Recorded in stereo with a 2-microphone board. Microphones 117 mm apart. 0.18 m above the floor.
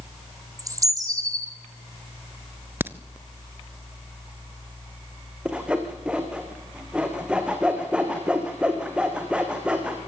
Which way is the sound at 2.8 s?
20° right (ahead or behind).